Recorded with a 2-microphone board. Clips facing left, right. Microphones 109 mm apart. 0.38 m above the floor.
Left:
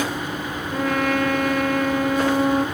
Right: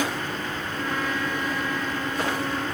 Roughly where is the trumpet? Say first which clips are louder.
Left 9 dB; left.